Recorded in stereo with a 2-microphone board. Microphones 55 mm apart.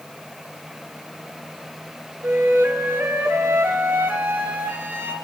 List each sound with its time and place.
2.2 s a flute: 35° right (ahead or behind), 0.9 m